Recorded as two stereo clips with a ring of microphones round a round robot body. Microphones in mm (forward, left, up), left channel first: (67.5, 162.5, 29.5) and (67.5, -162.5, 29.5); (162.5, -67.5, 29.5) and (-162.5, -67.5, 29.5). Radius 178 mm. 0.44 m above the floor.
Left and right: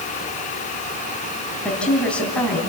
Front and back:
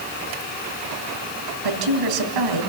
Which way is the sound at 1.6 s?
175° left.